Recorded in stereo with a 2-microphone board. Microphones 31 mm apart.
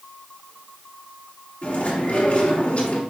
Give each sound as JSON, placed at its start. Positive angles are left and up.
{"t": 1.6, "sound": "chewing", "side_deg": 50, "distance_m": 2.0}